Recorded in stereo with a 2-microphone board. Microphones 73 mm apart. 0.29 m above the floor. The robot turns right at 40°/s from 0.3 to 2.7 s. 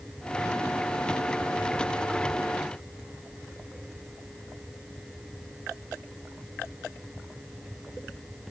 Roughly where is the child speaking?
I don't hear a child speaking.